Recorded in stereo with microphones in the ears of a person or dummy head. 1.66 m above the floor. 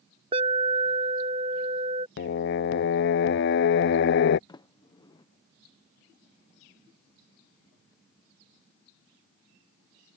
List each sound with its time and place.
0.3 s an alarm: 30° right (ahead or behind)
2.2 s singing: 60° left (ahead or behind)
4.5 s a sliding door: 25° left (ahead or behind)